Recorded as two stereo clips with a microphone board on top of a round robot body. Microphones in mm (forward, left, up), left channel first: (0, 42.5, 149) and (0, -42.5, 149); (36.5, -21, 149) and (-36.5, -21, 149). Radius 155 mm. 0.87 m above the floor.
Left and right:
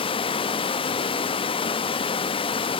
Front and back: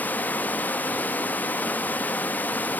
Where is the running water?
70° left, 0.8 m.